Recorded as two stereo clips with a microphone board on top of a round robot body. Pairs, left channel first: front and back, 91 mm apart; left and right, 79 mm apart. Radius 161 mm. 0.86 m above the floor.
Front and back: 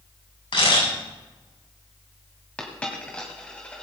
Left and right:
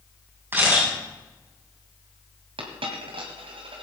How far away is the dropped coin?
About 1.9 m.